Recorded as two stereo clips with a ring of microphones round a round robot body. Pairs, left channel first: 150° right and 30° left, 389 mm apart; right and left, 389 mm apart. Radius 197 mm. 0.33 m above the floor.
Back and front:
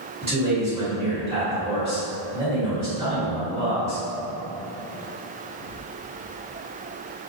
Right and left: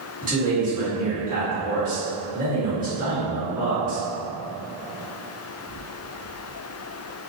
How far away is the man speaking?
About 1.4 m.